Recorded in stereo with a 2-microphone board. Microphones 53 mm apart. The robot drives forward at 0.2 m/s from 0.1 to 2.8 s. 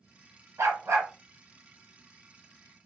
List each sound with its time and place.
0.6 s a dog barking: 70° right (ahead or behind), 1.2 m; by 1.1 s 75° right (ahead or behind), 1.2 m